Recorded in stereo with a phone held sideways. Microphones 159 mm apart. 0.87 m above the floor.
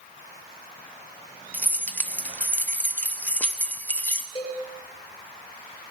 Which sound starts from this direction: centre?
Keys jangling, at 1.5 s.